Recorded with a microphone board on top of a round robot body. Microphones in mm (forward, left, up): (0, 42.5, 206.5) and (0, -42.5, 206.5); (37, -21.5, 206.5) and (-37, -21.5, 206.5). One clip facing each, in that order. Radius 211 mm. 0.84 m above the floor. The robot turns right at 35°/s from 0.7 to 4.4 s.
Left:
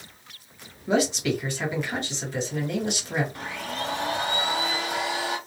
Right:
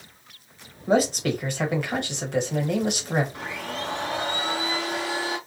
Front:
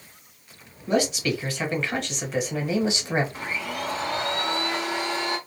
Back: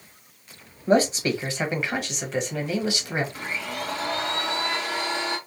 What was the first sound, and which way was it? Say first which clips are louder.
A man speaking: right 2 dB, back 3 dB; 135° right.